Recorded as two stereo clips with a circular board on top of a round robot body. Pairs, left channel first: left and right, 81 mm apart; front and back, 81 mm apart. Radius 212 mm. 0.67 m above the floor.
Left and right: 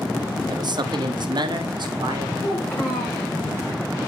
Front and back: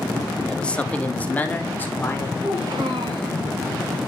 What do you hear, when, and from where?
0.5 s a man speaking: 80° right, 1.3 m; by 2.3 s 65° right, 3 m
2.4 s a child speaking: 155° left, 5.5 m